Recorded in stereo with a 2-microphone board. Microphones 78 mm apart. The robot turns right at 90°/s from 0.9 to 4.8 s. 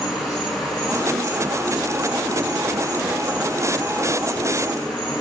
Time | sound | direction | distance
0.0 | an insect | 125° left | 1.8 m